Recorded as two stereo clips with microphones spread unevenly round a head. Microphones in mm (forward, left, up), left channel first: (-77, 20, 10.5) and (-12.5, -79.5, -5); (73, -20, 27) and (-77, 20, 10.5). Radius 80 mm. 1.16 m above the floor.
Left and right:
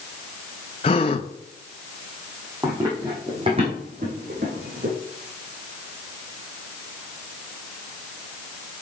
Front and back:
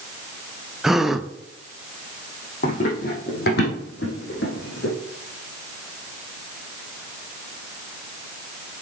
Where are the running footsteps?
25° left, 3.5 m; by 4.9 s 25° right, 4 m.